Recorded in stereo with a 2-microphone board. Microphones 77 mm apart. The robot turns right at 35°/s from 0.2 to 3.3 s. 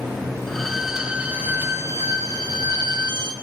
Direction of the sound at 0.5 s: 170° left.